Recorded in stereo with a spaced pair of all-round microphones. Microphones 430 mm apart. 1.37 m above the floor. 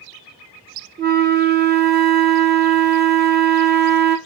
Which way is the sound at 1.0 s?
25° right (ahead or behind).